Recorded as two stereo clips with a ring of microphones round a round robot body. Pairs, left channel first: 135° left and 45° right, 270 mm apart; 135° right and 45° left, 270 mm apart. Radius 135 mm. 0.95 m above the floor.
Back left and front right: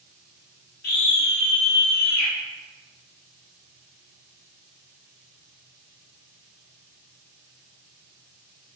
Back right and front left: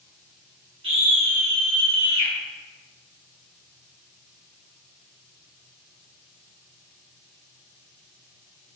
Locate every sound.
0.8 s a scream: 105° left, 0.8 m; by 2.3 s 80° left, 1.4 m